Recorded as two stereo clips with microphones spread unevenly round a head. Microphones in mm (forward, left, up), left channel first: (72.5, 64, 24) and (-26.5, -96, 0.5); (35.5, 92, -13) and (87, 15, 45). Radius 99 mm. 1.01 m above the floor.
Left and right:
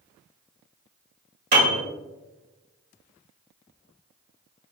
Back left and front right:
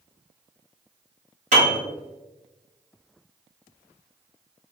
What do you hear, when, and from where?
1.5 s a piano: 80° right, 2.0 m